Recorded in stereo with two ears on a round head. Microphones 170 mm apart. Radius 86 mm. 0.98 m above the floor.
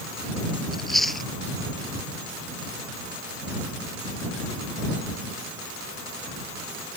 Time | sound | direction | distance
0.7 | chewing | centre (ahead or behind) | ?